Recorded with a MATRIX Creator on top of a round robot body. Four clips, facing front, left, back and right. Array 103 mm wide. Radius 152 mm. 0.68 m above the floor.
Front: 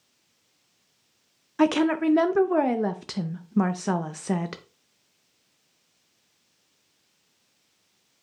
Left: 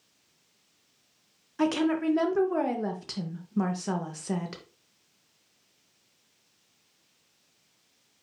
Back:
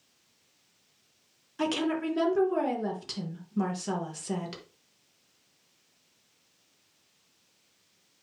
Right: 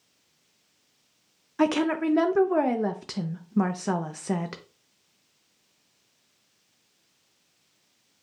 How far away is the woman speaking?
About 0.7 m.